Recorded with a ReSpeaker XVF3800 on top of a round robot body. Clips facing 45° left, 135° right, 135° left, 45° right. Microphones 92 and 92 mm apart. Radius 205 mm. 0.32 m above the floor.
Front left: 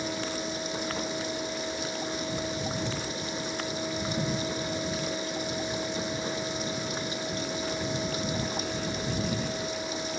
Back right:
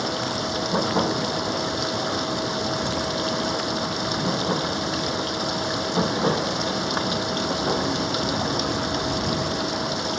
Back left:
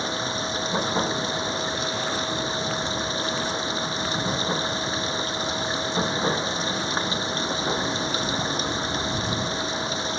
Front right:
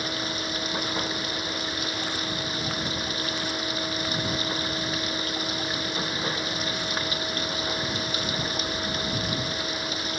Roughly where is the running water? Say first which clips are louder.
Back right 6 dB, back left 3 dB; behind.